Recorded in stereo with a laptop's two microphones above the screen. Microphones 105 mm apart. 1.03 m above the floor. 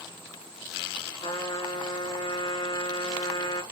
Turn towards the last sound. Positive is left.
turn(degrees=50)  # may be behind; listen again after turning